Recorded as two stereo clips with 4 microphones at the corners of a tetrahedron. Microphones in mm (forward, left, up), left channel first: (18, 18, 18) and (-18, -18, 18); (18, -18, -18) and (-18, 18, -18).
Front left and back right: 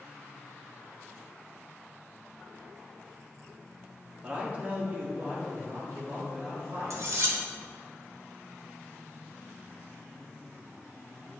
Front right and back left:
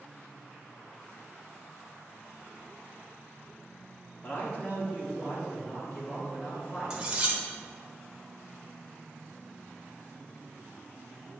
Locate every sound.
4.2 s a man speaking: 70° right, 1.4 m; by 7.0 s 105° right, 3.5 m
6.9 s cutlery clinking: 155° right, 1.0 m